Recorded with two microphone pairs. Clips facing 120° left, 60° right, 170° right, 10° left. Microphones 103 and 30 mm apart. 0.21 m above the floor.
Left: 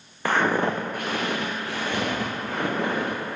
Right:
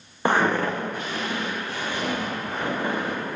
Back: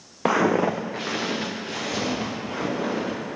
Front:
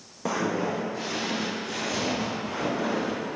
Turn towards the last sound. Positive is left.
turn(degrees=120)